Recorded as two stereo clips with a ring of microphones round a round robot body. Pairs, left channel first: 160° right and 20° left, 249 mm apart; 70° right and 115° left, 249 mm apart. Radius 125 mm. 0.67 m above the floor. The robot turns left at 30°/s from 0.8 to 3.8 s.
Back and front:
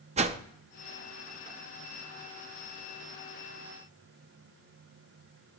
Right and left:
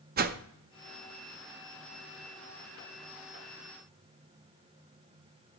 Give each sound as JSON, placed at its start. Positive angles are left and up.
{"t": 0.2, "sound": "a whoosh", "azimuth_deg": 75, "distance_m": 0.5}